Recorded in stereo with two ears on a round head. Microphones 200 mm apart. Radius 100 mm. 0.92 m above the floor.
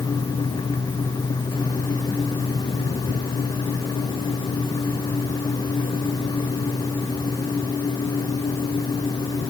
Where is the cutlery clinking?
No cutlery clinking in this recording.